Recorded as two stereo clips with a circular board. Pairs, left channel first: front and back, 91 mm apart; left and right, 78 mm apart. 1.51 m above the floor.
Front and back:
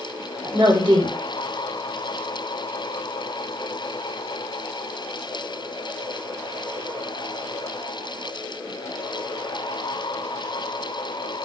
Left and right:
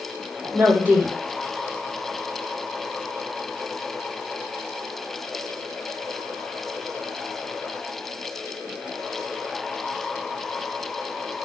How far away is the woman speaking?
About 1.0 m.